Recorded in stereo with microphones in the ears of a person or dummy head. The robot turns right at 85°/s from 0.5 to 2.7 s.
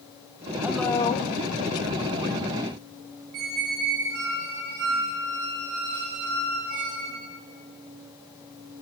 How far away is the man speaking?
About 1.1 m.